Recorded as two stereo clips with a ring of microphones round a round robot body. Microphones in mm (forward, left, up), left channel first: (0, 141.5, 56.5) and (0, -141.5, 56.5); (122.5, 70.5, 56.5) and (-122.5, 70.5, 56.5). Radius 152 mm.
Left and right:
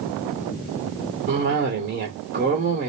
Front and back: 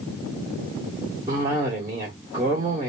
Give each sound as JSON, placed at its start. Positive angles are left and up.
{"t": 1.3, "sound": "a cough", "azimuth_deg": -115, "distance_m": 1.5}